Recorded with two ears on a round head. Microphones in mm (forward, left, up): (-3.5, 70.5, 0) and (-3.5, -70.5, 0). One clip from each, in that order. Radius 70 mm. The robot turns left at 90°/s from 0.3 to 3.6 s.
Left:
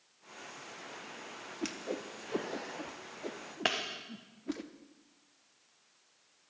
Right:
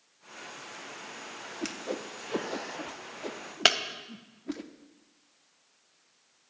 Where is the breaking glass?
80° right, 1.0 m.